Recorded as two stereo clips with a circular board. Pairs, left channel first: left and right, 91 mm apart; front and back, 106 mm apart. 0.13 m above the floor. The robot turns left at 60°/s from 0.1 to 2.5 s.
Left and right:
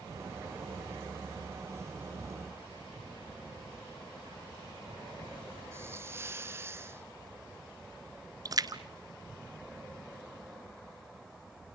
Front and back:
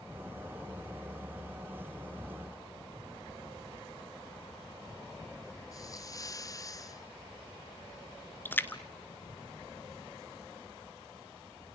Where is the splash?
65° right, 1.0 m.